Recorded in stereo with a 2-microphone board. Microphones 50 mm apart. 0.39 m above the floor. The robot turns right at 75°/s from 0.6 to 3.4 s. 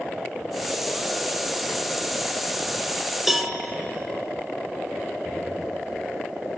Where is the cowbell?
10° right (ahead or behind), 0.7 m; by 3.5 s centre (ahead or behind), 0.7 m.